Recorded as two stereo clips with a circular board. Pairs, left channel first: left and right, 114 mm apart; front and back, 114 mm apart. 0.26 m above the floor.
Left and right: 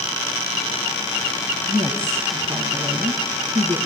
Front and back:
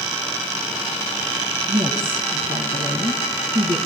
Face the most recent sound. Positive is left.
turn(degrees=-155)